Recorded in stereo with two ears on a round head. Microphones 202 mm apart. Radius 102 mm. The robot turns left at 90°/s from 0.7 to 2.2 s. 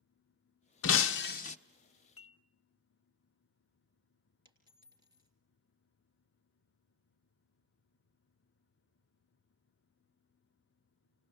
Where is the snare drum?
No snare drum in this recording.